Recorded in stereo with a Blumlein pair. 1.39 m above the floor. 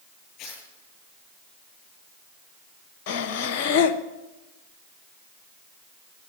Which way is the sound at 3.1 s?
45° left.